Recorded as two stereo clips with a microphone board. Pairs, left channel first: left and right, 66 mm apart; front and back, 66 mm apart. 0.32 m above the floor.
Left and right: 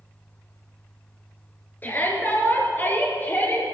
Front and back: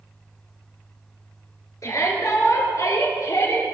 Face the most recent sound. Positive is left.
turn(degrees=30)